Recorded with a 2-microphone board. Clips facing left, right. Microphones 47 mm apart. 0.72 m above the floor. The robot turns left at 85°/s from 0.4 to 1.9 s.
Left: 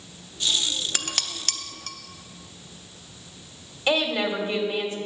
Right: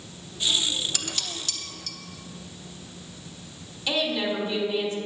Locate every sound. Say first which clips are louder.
0.9 s dishes clattering: left 2 dB; 40° left (ahead or behind), 0.7 m
3.9 s a woman speaking: left 3 dB; 35° left (ahead or behind), 2 m